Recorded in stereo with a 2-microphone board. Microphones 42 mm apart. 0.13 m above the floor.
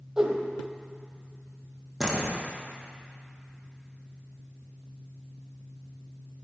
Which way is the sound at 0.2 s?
10° right (ahead or behind).